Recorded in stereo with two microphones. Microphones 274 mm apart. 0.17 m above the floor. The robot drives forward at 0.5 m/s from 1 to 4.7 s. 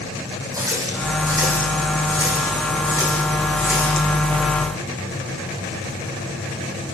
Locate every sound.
0.5 s a running tap: 10° right (ahead or behind), 6.5 m